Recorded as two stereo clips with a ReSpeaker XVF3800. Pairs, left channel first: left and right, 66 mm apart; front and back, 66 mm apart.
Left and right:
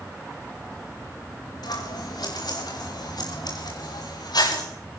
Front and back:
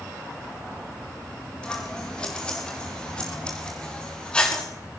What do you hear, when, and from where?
1.6 s scissors: 75° left, 5.5 m